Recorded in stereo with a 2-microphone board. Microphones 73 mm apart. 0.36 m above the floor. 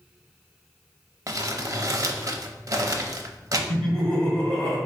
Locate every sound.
1.3 s crumpling: 50° right (ahead or behind), 0.5 m
3.7 s laughter: 15° left (ahead or behind), 1.6 m